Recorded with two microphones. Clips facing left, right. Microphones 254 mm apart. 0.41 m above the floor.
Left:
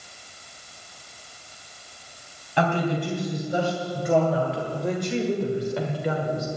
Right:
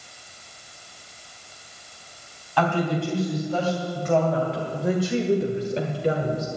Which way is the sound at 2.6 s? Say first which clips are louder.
Right 1 dB; 20° left (ahead or behind).